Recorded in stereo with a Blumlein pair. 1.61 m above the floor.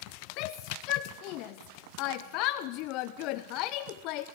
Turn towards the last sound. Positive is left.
turn(degrees=40)